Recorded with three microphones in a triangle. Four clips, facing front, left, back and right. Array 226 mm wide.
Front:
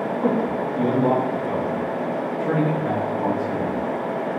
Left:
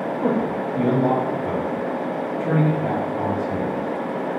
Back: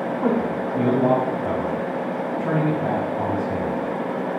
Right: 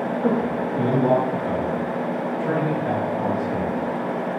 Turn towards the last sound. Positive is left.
turn(degrees=160)